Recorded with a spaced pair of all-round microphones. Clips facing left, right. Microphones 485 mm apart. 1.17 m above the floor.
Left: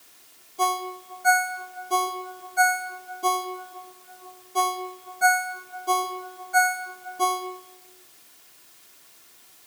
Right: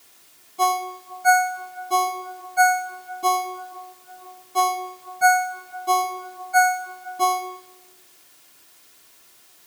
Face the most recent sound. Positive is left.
turn(degrees=-20)  # may be behind; listen again after turning